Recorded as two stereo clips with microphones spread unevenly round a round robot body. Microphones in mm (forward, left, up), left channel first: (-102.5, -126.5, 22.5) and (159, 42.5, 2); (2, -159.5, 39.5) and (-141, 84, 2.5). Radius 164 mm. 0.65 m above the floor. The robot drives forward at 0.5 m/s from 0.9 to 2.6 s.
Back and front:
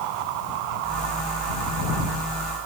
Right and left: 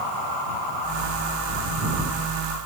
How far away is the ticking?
I don't hear ticking.